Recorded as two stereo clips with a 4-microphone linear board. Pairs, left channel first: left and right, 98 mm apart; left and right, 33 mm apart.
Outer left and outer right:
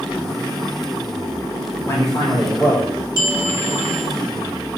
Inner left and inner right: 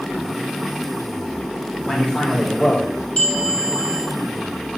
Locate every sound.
1.9 s a man speaking: 30° left (ahead or behind), 1.3 m; by 2.9 s 50° left (ahead or behind), 2 m
3.2 s a bell: 35° left (ahead or behind), 1.0 m